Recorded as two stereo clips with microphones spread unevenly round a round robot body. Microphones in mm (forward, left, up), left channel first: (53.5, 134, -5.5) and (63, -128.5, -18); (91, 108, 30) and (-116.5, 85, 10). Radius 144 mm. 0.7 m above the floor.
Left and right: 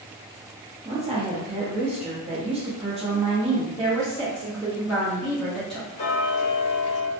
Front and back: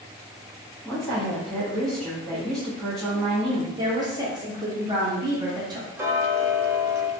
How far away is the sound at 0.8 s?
About 0.7 m.